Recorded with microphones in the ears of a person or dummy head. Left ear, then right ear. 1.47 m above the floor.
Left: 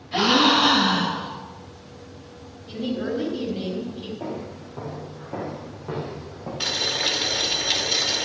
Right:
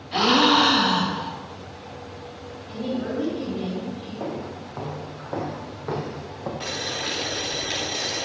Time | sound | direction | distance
0.1 | a gasp | 15° right (ahead or behind) | 7 m
2.7 | a woman speaking | 25° left (ahead or behind) | 4.5 m
4.2 | footsteps | 50° right (ahead or behind) | 4.5 m
6.6 | boiling | 30° left (ahead or behind) | 3 m